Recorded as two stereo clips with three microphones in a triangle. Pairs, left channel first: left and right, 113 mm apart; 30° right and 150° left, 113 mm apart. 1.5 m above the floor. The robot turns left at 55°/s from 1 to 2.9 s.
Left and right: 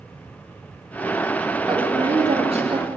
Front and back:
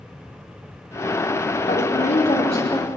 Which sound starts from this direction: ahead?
A woman speaking, at 1.7 s.